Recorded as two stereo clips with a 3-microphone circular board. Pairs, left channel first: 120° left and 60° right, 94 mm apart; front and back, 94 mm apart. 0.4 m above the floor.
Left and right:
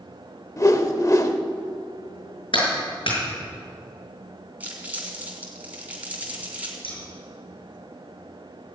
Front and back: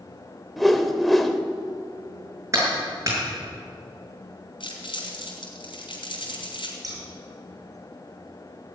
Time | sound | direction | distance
0.6 | a whoosh | 85° left | 1.0 m
2.5 | a clap | 125° left | 6 m
4.6 | crumpling | 10° left | 4 m
6.8 | scissors | 130° left | 6.5 m